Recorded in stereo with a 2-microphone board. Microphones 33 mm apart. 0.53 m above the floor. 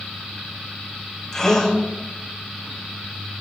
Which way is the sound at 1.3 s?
20° left (ahead or behind).